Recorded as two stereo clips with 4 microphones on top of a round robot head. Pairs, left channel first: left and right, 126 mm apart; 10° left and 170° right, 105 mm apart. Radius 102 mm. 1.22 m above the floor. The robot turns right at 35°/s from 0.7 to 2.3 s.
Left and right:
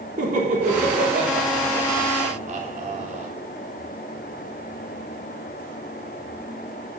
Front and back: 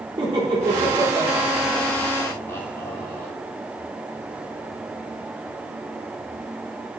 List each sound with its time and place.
0.2 s laughter: 120° right, 3 m; by 3.3 s 65° right, 3 m